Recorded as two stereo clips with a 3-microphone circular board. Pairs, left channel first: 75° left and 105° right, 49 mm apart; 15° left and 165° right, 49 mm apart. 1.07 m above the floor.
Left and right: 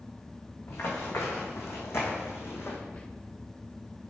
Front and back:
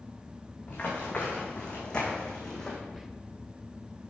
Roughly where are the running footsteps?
Left.